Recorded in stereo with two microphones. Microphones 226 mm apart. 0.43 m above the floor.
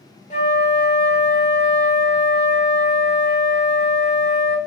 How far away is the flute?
About 1.1 m.